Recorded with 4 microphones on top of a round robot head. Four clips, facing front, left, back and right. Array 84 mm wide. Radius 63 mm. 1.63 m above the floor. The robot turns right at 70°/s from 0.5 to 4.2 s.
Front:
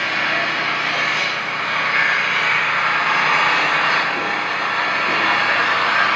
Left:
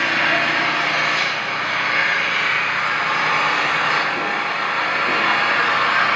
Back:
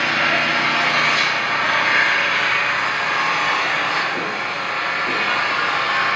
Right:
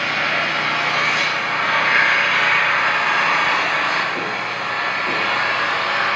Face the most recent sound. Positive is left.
turn(degrees=45)